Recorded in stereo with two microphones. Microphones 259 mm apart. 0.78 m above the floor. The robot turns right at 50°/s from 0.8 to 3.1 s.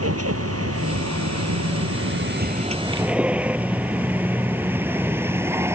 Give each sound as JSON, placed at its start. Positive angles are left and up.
{"t": 0.0, "sound": "a vehicle", "side_deg": -65}